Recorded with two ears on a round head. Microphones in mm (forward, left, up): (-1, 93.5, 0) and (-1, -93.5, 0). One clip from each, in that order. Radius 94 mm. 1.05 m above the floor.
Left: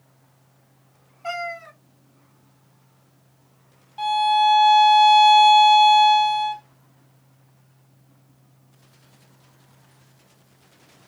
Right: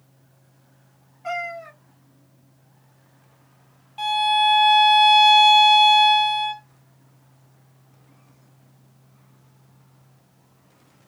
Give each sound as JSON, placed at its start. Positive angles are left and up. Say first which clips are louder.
{"t": 1.2, "sound": "a cat meowing", "louder": "right 1 dB", "side_deg": 20, "distance_m": 1.9}
{"t": 4.0, "sound": "a violin", "louder": "left 1 dB", "side_deg": -5, "distance_m": 1.0}